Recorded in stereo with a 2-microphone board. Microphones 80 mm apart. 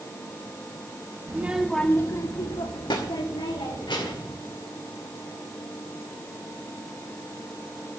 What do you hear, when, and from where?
1.3 s a child speaking: 25° right (ahead or behind), 0.9 m; by 4.3 s 85° left, 3 m